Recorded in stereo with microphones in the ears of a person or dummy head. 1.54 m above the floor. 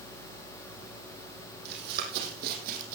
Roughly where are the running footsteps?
Right.